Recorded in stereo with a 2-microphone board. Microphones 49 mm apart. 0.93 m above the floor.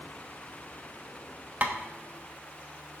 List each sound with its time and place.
1.6 s tapping: 35° right (ahead or behind), 1.2 m